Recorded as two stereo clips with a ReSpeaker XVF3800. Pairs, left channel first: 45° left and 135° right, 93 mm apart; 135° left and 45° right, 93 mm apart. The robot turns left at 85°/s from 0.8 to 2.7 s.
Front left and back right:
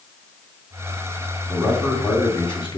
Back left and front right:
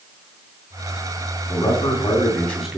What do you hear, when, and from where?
1.5 s a man speaking: 145° left, 2.5 m; by 2.8 s 40° left, 2.5 m